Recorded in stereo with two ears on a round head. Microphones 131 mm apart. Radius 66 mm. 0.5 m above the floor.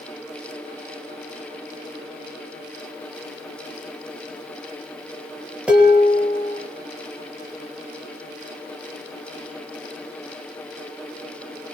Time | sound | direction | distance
5.7 | dishes clattering | 5° right (ahead or behind) | 6.5 m